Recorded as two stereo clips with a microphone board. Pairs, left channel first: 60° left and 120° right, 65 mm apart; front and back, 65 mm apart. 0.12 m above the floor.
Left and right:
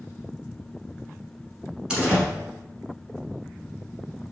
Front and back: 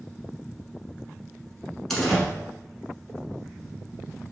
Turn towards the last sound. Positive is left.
turn(degrees=-75)